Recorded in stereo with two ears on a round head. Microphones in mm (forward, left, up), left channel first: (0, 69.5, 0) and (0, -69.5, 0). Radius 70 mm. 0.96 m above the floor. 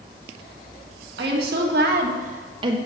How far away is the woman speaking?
About 1.3 m.